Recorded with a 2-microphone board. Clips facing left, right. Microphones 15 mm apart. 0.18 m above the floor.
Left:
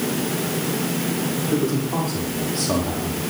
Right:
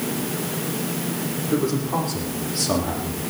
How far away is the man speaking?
About 7 m.